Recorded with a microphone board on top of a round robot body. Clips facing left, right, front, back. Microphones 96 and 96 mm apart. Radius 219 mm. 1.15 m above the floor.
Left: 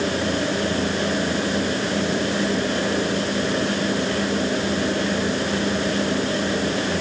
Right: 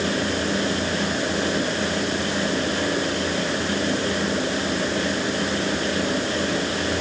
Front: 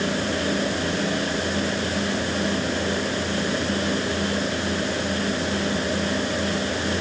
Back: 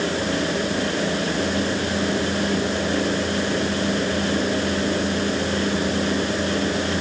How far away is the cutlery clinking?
No cutlery clinking in this recording.